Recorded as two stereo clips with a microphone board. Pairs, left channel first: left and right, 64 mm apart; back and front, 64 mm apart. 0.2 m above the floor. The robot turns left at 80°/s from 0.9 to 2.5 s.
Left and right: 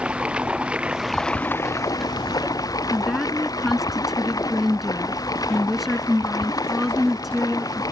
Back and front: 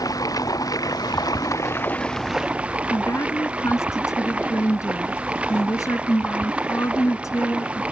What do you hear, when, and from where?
0.0 s running water: 165° right; by 7.9 s 70° left
2.9 s a woman speaking: 175° right